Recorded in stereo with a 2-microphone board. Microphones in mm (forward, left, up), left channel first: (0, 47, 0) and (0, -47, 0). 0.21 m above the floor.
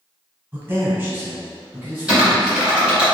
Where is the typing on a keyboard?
10° right (ahead or behind), 1.8 m.